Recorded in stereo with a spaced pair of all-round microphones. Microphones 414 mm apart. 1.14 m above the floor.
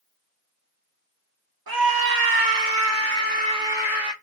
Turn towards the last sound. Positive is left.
turn(degrees=0)  # may be behind; listen again after turning